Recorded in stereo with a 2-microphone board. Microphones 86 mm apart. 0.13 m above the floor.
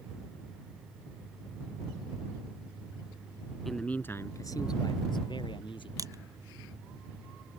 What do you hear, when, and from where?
3.6 s a man speaking: centre (ahead or behind); by 5.9 s 70° left (ahead or behind)
6.0 s crushing: 45° right (ahead or behind)